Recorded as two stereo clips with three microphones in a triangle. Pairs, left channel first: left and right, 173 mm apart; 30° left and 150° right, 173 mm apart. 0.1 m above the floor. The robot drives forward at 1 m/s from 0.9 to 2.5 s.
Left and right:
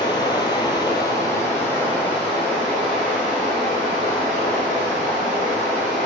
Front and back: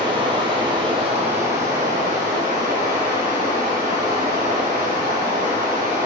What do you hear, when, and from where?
0.0 s running water: 155° left, 0.9 m; by 6.1 s 170° left, 2.5 m